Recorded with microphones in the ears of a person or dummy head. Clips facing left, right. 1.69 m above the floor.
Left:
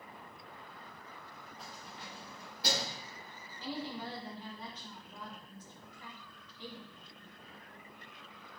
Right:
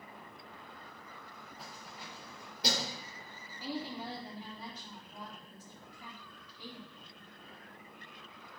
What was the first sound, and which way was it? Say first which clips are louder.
Keys jangling: even; 5° right (ahead or behind).